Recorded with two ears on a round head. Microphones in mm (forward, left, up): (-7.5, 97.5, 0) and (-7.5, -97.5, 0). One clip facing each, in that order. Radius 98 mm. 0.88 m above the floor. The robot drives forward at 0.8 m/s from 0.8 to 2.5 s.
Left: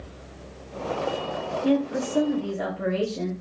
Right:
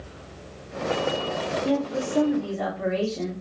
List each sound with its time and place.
1.6 s a woman speaking: 30° left (ahead or behind), 0.6 m; by 3.3 s 15° left (ahead or behind), 1.1 m